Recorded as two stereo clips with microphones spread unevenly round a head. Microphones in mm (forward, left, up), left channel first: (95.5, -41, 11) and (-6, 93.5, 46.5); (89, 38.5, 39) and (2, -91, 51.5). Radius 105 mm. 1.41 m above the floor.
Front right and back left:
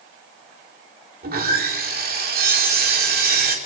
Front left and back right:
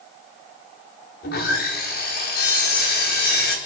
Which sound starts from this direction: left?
Sawing, at 1.2 s.